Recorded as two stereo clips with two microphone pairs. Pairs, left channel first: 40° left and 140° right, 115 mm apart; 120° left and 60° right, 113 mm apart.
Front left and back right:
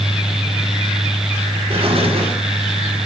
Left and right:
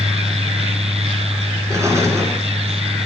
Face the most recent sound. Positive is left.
turn(degrees=-115)